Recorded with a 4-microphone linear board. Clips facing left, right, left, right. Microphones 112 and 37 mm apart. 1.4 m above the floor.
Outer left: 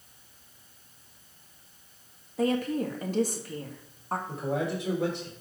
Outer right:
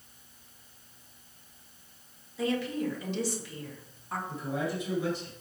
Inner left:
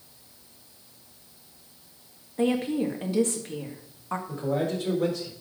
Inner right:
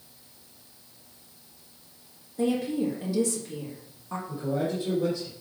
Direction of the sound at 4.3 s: 75° left (ahead or behind).